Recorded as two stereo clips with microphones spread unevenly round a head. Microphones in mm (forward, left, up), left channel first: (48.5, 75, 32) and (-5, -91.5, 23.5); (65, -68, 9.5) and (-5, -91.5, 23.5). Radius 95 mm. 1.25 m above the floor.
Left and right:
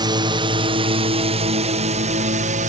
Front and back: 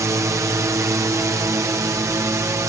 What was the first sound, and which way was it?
A drone, 145° right.